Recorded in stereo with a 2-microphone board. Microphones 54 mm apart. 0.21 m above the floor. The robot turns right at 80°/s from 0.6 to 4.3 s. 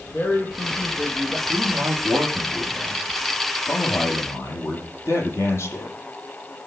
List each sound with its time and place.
0.1 s a woman speaking: 140° left, 5 m; by 1.4 s 160° right, 5 m
1.5 s a man speaking: 105° right, 8 m; by 6.0 s 120° left, 8 m